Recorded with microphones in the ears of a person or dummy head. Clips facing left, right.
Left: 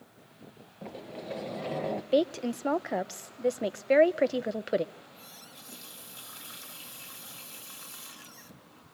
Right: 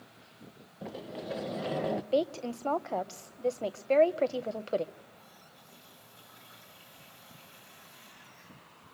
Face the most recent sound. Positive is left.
turn(degrees=80)